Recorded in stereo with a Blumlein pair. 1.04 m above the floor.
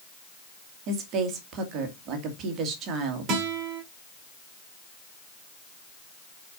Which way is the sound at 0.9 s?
35° right.